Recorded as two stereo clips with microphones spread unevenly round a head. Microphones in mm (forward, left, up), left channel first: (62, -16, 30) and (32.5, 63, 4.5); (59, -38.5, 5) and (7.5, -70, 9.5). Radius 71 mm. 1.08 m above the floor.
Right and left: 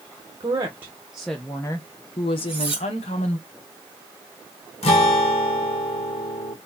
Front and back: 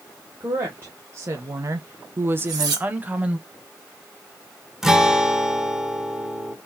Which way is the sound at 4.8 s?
65° right.